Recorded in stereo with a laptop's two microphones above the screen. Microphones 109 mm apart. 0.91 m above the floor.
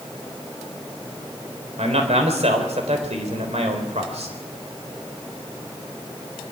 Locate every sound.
1.8 s a man speaking: 80° right, 3.5 m